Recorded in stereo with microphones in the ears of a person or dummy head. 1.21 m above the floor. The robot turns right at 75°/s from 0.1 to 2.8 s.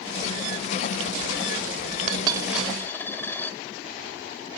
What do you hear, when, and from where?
2.1 s a dropped coin: 40° right (ahead or behind), 1.9 m; by 3.6 s 10° left (ahead or behind), 1.9 m